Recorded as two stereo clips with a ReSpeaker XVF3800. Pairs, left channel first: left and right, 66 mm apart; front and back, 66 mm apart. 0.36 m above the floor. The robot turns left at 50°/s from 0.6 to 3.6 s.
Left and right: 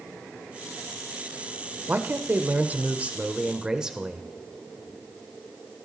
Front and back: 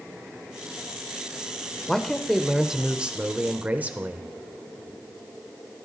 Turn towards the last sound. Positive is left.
turn(degrees=-155)